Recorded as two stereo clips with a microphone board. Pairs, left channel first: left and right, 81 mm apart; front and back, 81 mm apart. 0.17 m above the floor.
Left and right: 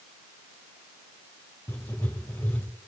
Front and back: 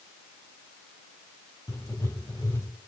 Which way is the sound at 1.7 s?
35° left.